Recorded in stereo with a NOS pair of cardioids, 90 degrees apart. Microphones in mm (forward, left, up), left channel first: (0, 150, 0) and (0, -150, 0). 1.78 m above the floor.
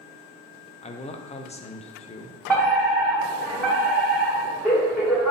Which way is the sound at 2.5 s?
Straight ahead.